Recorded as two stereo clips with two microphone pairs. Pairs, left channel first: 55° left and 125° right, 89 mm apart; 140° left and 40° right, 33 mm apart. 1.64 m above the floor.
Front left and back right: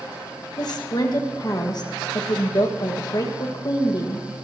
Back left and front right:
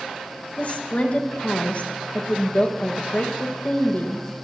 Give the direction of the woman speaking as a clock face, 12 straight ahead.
9 o'clock.